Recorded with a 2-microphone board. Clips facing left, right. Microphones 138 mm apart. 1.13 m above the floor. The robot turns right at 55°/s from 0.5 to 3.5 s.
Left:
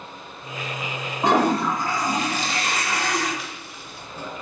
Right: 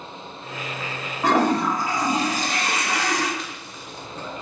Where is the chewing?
Centre (ahead or behind), 0.7 m; by 4.4 s 5° left (ahead or behind), 0.7 m.